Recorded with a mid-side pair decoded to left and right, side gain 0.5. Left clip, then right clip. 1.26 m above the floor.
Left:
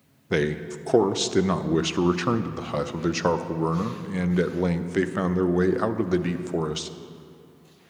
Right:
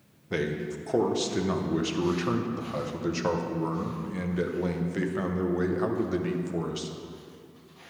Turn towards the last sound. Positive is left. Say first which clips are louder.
# left 5 dB
turn(degrees=45)